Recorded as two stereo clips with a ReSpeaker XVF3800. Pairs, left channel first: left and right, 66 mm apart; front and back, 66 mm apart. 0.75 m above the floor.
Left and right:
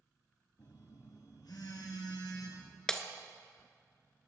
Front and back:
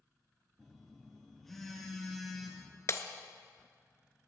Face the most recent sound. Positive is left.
turn(degrees=15)